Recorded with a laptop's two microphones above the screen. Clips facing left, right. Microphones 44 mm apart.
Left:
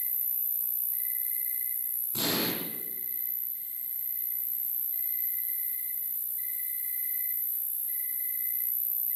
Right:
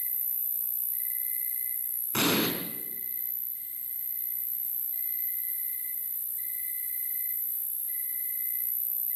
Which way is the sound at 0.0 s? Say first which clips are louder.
Even; centre (ahead or behind).